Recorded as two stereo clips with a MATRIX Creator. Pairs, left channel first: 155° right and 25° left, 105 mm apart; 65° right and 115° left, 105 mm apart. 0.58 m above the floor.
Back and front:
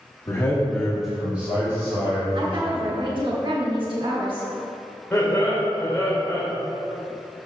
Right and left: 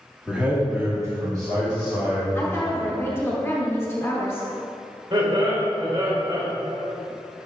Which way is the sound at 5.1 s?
125° left.